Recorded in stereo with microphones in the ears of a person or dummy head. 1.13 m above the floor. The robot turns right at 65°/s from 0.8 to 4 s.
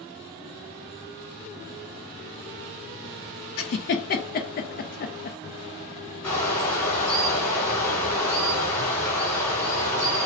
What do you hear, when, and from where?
3.6 s a giggle: 65° left (ahead or behind), 0.5 m; by 5.4 s 45° left (ahead or behind), 0.5 m
6.2 s a bird: 10° left (ahead or behind), 1.5 m